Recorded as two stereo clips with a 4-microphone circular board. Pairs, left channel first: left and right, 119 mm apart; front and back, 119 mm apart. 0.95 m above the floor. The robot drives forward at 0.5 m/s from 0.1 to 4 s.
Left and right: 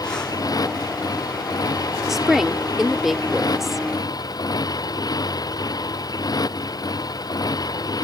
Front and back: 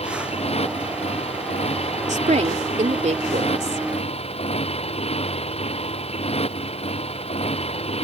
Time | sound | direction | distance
0.0 | a motorcycle | 30° left | ?
2.1 | a woman speaking | straight behind | ?